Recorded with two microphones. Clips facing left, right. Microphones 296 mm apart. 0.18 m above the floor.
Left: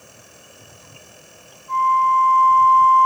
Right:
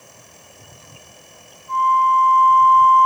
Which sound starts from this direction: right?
A flute, at 1.7 s.